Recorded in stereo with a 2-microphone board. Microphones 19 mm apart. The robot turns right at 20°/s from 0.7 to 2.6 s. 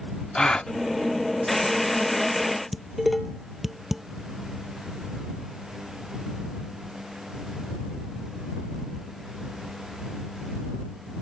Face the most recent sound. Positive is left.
turn(degrees=-10)  # may be behind; listen again after turning